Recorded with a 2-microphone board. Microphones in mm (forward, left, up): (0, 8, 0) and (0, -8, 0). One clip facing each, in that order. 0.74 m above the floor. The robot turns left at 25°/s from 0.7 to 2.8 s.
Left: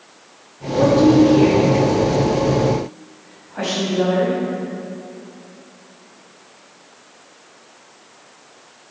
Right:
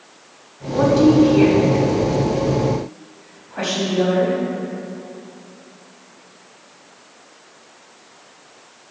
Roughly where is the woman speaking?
Right.